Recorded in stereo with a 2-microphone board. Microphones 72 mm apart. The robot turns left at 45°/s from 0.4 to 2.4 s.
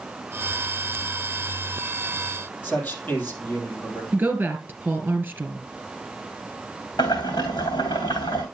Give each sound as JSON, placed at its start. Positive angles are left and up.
{"t": 2.6, "sound": "a man speaking", "side_deg": 25, "distance_m": 4.5}
{"t": 4.1, "sound": "a woman speaking", "side_deg": -25, "distance_m": 2.0}
{"t": 7.0, "sound": "boiling", "side_deg": 85, "distance_m": 3.0}